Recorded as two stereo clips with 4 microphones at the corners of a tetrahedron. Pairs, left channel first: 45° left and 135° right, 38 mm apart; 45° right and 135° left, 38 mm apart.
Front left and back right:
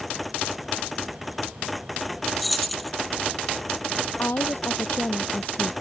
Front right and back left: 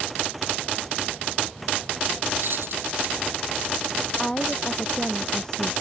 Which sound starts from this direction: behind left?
Keys jangling, at 2.4 s.